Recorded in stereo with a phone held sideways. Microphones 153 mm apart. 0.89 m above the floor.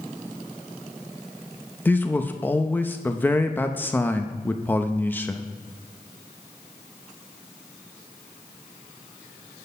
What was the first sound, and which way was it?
A man speaking, 15° left (ahead or behind).